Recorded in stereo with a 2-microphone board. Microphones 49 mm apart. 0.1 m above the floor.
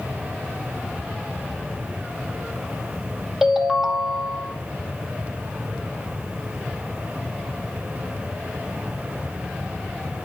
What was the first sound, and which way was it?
A ringtone, 10° right (ahead or behind).